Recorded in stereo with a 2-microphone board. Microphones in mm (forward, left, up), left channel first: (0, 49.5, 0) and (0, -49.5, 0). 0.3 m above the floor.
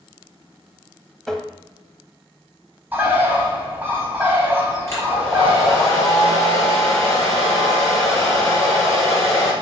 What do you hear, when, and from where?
1.3 s tapping: 5° left (ahead or behind), 0.9 m
2.9 s a bird: 20° right (ahead or behind), 1.6 m
4.9 s a hair dryer: 30° left (ahead or behind), 3.5 m